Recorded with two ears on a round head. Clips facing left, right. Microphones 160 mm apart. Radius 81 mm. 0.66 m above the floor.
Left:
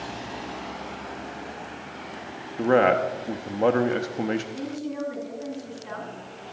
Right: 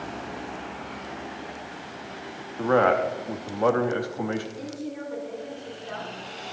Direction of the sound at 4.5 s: 80° left.